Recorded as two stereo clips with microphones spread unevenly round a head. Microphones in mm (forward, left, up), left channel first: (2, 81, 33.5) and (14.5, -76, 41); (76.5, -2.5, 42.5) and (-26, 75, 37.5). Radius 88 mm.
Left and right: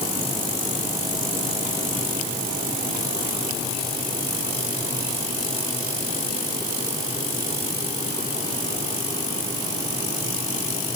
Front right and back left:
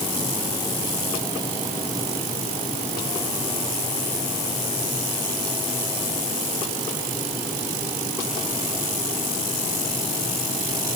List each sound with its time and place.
Only background noise.